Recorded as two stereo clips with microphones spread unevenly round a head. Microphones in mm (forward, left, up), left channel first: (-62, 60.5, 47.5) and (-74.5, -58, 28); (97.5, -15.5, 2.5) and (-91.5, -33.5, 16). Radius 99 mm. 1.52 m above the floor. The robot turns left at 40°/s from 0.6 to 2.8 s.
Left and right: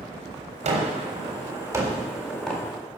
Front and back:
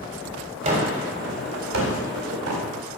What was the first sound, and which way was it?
A gunshot, 120° right.